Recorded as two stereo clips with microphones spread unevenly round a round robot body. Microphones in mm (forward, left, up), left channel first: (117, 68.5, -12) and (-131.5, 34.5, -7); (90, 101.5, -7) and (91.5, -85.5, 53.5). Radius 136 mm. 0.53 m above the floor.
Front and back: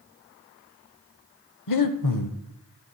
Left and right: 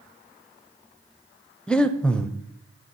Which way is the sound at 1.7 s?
5° left.